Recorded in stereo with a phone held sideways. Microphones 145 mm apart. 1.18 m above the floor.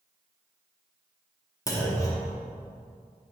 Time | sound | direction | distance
1.7 | a clunk | 20° left (ahead or behind) | 1.1 m